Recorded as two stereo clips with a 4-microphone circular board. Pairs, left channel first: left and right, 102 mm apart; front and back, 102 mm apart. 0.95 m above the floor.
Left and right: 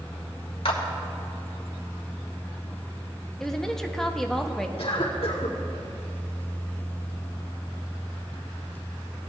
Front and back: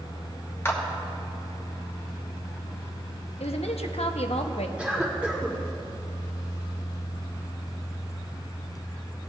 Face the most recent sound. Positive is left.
turn(degrees=105)